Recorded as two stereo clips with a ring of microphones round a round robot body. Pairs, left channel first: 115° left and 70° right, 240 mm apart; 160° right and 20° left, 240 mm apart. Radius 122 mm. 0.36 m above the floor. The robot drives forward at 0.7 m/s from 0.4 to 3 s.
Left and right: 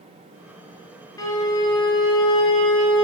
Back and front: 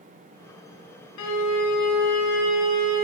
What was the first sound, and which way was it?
A violin, 170° right.